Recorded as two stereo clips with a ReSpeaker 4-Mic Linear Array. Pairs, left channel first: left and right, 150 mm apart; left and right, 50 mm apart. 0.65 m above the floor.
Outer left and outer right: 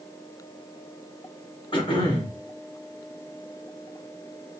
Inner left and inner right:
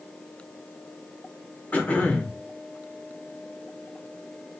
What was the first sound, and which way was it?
Throat clearing, 35° left (ahead or behind).